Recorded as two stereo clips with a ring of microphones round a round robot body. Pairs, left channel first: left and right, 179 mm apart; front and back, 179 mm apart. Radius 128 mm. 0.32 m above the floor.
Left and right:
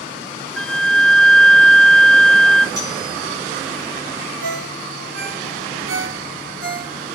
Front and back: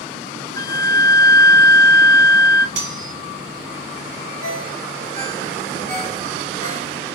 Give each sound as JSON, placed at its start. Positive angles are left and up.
{"t": 0.6, "sound": "a flute", "azimuth_deg": 5, "distance_m": 0.7}
{"t": 2.8, "sound": "cutlery clinking", "azimuth_deg": -165, "distance_m": 2.0}
{"t": 4.4, "sound": "a ringtone", "azimuth_deg": -120, "distance_m": 3.5}